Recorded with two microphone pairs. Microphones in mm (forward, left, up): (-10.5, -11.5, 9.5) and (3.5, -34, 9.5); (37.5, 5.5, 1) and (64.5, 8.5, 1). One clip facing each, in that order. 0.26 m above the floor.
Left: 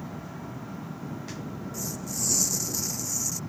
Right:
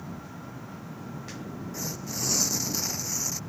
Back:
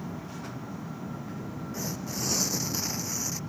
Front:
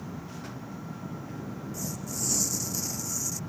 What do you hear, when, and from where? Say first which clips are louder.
0.0 s an aircraft: left 2 dB, back 2 dB; 160° left; by 3.5 s straight behind
1.7 s tearing paper: right 1 dB, back 3 dB; 120° right